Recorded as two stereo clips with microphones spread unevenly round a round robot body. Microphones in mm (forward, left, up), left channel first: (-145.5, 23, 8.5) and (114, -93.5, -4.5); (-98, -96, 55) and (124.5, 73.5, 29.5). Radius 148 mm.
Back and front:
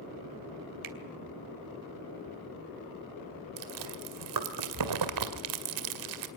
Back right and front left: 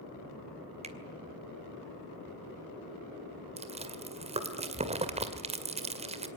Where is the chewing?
30° right, 2 m.